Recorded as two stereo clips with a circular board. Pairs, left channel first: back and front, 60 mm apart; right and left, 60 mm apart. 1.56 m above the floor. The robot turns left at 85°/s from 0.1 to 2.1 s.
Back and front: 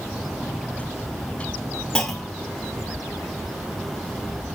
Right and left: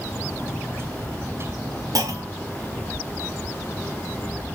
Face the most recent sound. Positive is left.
turn(degrees=95)